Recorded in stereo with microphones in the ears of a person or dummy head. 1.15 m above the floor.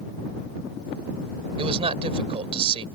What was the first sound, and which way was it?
A man speaking, 30° right (ahead or behind).